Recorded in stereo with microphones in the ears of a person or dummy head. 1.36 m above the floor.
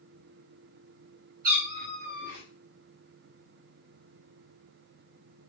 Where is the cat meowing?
45° right (ahead or behind), 2.5 m.